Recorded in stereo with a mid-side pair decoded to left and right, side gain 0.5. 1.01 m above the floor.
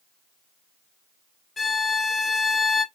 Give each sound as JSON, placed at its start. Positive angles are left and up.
{"t": 1.6, "sound": "a violin", "azimuth_deg": 30, "distance_m": 1.5}